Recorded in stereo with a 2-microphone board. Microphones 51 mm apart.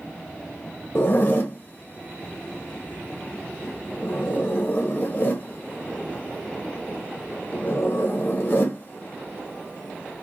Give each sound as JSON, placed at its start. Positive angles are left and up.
{"t": 0.9, "sound": "a zipper", "side_deg": 45, "distance_m": 0.6}